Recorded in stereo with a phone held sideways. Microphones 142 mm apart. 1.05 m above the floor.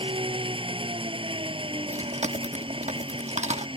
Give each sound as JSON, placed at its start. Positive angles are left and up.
{"t": 0.0, "sound": "an engine running", "side_deg": -40}
{"t": 1.9, "sound": "chewing", "side_deg": -55}